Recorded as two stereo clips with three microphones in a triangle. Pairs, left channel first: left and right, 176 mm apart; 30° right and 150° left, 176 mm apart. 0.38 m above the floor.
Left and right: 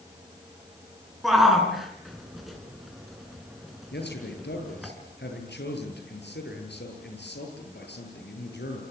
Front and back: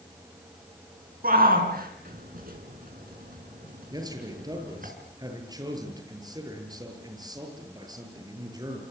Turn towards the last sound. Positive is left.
turn(degrees=85)